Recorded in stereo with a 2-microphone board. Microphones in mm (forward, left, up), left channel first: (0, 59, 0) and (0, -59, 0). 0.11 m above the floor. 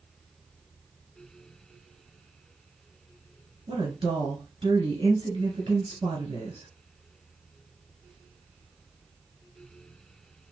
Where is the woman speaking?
40° right (ahead or behind), 1.8 m.